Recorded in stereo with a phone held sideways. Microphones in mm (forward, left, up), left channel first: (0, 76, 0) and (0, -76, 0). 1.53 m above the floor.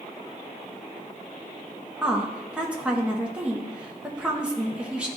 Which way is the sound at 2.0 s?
5° right (ahead or behind).